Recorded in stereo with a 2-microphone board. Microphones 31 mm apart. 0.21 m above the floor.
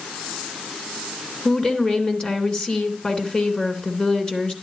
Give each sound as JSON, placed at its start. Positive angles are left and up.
{"t": 1.4, "sound": "a woman speaking", "side_deg": 35, "distance_m": 2.5}